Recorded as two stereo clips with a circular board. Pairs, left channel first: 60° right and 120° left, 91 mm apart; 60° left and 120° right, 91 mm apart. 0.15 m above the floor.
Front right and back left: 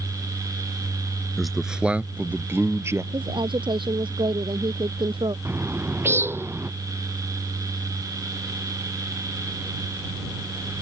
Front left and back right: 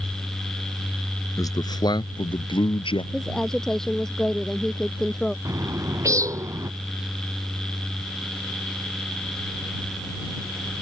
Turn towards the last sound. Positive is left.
turn(degrees=-175)